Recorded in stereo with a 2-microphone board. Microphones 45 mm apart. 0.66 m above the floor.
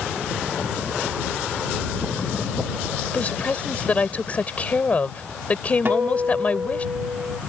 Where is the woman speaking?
30° left (ahead or behind).